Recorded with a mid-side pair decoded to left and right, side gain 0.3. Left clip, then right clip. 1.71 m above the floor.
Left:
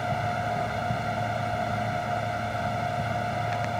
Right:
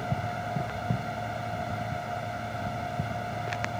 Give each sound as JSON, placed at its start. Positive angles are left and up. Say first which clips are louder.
{"t": 0.0, "sound": "a fan", "louder": "left 5 dB", "azimuth_deg": 50}